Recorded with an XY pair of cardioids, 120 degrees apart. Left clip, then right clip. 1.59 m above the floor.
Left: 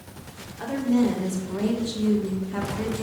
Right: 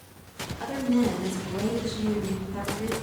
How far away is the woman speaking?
About 2.5 m.